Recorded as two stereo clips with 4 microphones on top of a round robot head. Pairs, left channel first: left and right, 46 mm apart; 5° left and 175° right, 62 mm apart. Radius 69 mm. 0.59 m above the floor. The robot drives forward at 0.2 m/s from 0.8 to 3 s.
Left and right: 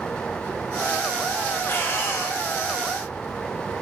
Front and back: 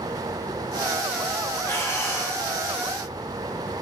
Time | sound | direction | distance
1.6 | breathing | 55° left | 1.0 m